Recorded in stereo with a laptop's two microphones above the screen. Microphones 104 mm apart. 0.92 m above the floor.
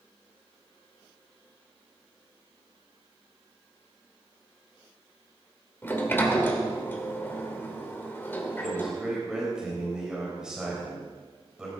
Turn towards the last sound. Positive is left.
turn(degrees=-10)  # may be behind; listen again after turning